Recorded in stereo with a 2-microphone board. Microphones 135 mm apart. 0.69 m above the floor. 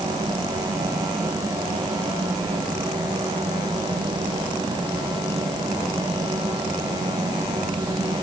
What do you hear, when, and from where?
Only background noise.